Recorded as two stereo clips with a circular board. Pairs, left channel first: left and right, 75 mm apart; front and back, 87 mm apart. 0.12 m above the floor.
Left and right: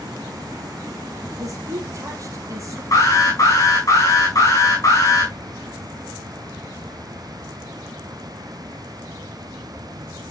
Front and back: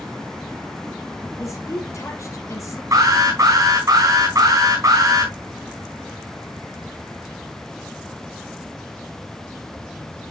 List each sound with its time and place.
1.4 s a woman speaking: 50° right, 3.5 m
2.9 s an alarm: 130° left, 5.5 m